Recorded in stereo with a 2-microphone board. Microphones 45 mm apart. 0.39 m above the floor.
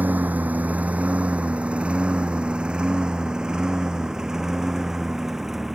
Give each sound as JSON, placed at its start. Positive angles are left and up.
{"t": 0.0, "sound": "a lawn mower", "side_deg": -40}